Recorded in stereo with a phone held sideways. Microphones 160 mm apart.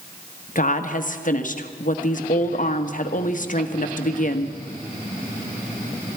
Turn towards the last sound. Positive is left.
turn(degrees=55)  # may be behind; listen again after turning